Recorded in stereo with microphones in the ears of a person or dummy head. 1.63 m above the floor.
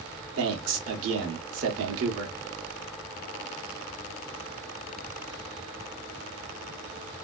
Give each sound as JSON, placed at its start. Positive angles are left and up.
{"t": 0.4, "sound": "a man speaking", "side_deg": -80, "distance_m": 1.5}